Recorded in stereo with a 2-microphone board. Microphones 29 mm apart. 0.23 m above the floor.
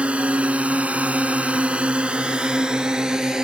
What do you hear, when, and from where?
0.0 s a drone: 50° right (ahead or behind); by 3.4 s 25° right (ahead or behind)